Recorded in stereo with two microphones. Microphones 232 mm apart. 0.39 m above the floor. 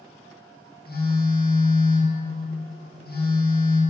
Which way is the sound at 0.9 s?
45° left (ahead or behind).